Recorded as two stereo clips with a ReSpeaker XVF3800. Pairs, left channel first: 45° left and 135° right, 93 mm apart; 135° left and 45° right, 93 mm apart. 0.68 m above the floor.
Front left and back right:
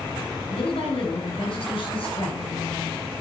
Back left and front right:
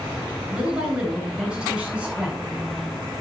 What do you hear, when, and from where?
0.5 s a woman speaking: 35° left, 9.5 m